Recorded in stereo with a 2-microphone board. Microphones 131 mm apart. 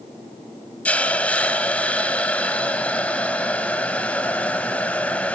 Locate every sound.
0.8 s a hiss: 10° left (ahead or behind), 0.5 m